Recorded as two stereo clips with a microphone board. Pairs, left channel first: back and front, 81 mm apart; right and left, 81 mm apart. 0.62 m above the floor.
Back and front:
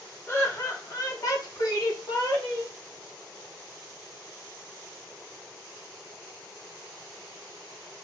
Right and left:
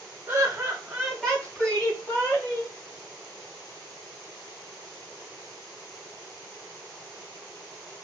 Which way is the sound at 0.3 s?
145° left.